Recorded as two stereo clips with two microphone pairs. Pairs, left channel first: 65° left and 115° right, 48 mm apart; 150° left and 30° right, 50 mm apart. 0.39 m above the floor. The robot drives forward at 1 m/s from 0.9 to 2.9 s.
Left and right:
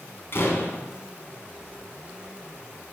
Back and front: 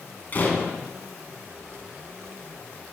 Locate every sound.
0.3 s a door slam: 100° left, 2.5 m